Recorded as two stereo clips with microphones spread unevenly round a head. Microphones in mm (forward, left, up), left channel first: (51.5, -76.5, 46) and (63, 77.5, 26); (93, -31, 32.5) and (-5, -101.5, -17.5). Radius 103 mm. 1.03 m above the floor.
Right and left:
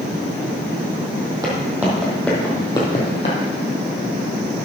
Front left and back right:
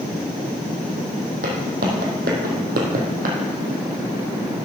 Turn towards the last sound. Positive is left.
turn(degrees=-145)